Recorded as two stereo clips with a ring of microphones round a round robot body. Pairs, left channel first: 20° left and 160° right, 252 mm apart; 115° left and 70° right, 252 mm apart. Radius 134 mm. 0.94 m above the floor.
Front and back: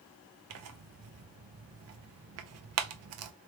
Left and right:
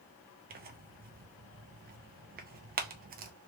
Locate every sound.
0.5 s tearing paper: 125° right, 0.6 m